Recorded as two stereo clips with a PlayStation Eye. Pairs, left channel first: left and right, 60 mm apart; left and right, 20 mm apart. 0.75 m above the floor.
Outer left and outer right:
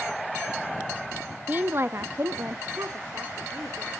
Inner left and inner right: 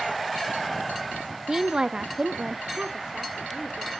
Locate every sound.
1.5 s a woman speaking: 25° right (ahead or behind), 0.6 m; by 3.9 s 45° right (ahead or behind), 2 m